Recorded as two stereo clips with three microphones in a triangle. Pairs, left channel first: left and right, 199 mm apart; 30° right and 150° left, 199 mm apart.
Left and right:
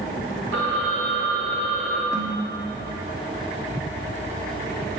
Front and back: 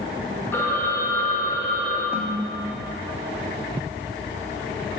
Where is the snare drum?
70° left, 1.4 m.